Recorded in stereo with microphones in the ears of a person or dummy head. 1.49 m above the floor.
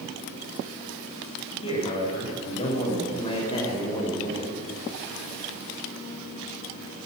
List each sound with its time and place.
1.6 s a man speaking: 40° left (ahead or behind), 9 m; by 4.6 s 30° left (ahead or behind), 6 m